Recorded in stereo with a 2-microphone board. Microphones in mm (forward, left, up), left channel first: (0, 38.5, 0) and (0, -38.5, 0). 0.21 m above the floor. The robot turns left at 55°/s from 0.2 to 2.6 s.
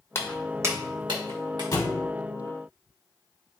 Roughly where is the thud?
Left.